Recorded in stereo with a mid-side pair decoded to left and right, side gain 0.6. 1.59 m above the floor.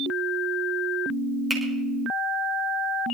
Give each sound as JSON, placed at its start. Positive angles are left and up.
{"t": 1.5, "sound": "a finger snap", "azimuth_deg": -15, "distance_m": 6.0}